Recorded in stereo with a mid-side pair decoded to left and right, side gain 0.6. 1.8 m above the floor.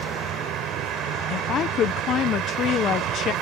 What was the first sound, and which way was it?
A vehicle, 60° right.